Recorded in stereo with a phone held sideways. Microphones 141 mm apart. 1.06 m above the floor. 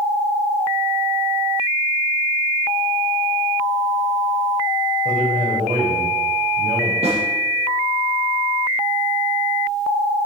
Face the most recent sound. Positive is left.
turn(degrees=-45)  # may be behind; listen again after turning